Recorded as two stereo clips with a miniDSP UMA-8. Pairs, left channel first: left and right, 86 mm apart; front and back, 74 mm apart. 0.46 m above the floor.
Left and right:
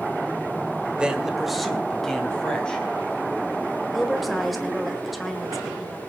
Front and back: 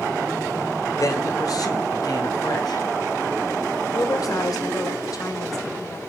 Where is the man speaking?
15° right, 1.8 m; by 2.9 s 10° left, 3.5 m.